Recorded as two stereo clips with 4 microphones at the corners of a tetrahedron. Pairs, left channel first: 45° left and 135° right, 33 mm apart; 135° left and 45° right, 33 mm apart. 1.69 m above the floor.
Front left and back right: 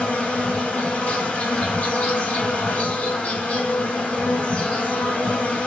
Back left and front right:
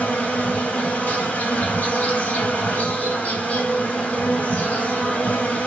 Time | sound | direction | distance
0.0 | an insect | 90° left | 3 m